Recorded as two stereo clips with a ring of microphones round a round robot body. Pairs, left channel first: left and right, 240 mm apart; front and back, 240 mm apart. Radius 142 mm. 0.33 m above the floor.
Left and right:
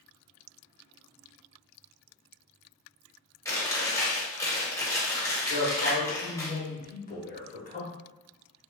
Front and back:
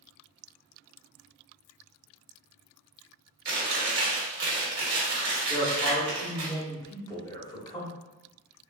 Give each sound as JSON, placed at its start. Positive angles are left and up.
{"t": 3.5, "sound": "chewing", "azimuth_deg": 165, "distance_m": 1.2}
{"t": 5.5, "sound": "a man speaking", "azimuth_deg": 65, "distance_m": 1.1}